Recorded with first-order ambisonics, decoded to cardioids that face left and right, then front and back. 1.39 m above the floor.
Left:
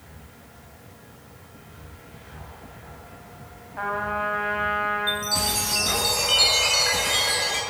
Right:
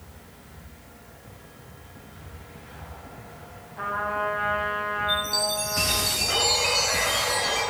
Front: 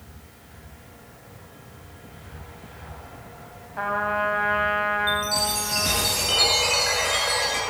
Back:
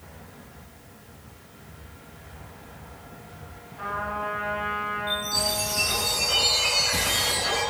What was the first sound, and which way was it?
A trumpet, 30° left.